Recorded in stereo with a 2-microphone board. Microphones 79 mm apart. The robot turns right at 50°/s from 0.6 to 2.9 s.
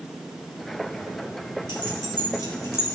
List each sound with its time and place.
1.7 s keys jangling: 80° left, 3.5 m; by 3.0 s 30° left (ahead or behind), 3.5 m